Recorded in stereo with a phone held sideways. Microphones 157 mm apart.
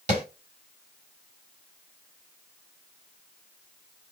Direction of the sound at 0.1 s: 50° right (ahead or behind).